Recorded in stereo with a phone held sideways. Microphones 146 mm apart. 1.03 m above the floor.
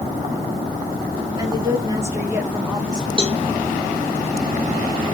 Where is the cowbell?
35° right (ahead or behind), 0.9 m.